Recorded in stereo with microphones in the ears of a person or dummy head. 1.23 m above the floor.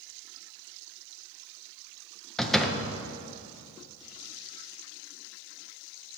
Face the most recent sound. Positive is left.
turn(degrees=0)  # may be behind; listen again after turning